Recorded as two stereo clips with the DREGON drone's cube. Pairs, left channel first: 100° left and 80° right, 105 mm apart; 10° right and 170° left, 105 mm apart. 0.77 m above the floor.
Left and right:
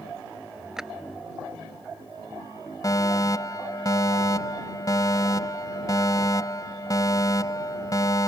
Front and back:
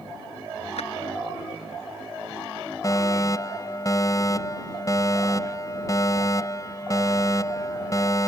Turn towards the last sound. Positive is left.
turn(degrees=45)